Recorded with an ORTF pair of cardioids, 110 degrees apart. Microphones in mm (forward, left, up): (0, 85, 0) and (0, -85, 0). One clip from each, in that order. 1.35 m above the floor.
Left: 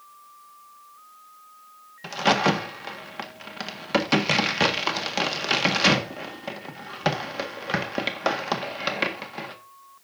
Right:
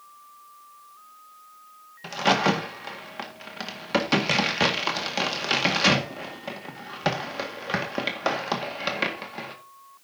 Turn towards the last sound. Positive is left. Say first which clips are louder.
# left 1 dB
turn(degrees=5)